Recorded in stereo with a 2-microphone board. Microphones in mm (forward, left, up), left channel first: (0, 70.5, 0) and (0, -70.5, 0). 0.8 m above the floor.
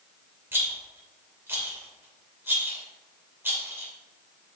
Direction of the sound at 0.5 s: 15° right (ahead or behind).